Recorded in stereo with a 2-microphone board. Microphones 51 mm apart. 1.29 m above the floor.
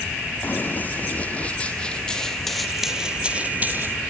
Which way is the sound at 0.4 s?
40° left (ahead or behind).